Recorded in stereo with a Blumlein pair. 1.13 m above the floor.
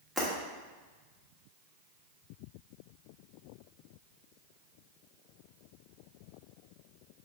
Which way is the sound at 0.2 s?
10° right.